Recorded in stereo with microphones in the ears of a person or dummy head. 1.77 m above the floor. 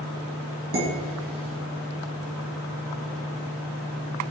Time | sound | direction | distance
0.7 | dishes clattering | 45° right (ahead or behind) | 1.4 m